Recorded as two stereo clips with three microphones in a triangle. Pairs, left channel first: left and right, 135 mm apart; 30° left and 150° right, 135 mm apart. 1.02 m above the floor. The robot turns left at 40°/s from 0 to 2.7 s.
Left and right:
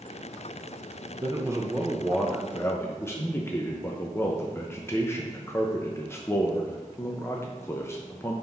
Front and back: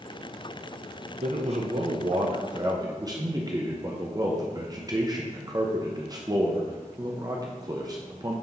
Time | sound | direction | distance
1.2 | a man speaking | 140° right | 0.7 m